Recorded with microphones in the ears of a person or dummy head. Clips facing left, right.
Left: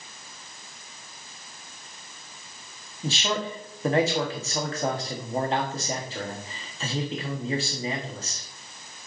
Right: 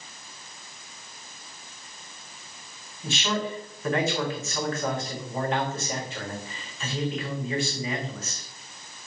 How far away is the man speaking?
About 1.5 m.